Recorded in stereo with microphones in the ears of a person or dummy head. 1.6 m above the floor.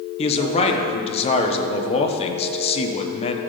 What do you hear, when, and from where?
0.2 s a man speaking: 35° left (ahead or behind), 1.2 m